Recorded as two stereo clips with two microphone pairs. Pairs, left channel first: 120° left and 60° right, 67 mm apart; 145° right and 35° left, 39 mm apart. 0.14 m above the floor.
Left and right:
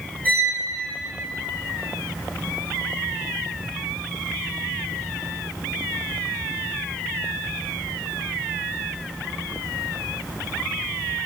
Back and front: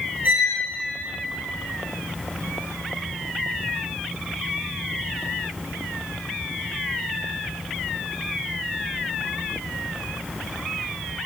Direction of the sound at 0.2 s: 55° left.